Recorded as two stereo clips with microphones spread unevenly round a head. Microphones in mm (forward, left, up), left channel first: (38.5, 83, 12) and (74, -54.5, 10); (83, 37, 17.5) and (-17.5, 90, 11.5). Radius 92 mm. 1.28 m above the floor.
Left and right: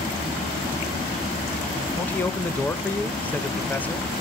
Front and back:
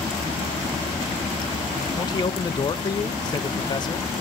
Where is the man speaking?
25° left, 1.1 m.